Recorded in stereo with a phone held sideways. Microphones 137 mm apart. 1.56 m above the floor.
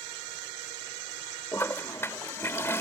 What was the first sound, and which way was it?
A toilet flushing, 20° left (ahead or behind).